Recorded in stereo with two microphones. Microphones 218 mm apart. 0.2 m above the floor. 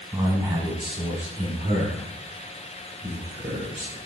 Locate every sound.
0.1 s a man speaking: 10° right (ahead or behind), 1.5 m; by 4.0 s 25° right (ahead or behind), 4 m